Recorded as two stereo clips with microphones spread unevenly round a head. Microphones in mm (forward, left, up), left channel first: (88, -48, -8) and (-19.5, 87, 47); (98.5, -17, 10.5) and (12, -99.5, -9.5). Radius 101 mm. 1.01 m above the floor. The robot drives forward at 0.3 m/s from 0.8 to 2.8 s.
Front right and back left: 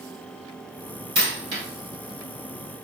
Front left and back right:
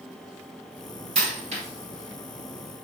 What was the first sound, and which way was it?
A dropped coin, 175° left.